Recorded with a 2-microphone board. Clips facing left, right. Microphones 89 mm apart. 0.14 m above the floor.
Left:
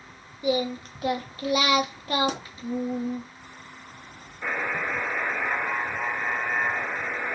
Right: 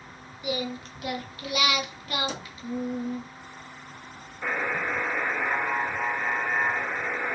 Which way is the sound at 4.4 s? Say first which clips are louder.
Even; 5° right (ahead or behind).